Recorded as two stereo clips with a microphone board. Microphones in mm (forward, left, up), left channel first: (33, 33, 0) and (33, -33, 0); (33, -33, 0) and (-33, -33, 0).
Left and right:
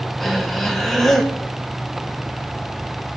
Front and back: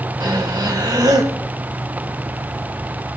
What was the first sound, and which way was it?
Breathing, 175° left.